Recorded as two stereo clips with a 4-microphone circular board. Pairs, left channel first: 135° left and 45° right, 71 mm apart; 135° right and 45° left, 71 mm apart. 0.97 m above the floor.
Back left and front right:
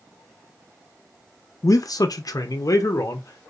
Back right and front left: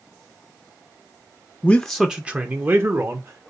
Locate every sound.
1.6 s a man speaking: 160° left, 0.6 m; by 3.5 s 85° left, 1.4 m